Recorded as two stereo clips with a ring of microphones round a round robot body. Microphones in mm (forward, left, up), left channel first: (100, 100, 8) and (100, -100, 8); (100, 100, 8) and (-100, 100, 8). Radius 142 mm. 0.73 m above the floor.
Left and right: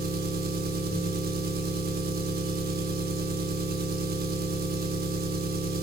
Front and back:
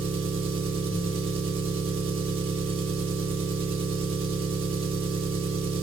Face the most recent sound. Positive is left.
turn(degrees=-120)